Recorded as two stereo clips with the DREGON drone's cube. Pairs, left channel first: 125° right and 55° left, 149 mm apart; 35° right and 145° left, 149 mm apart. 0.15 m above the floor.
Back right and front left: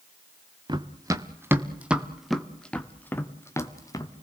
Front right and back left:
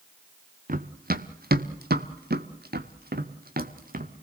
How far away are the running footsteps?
About 1.6 m.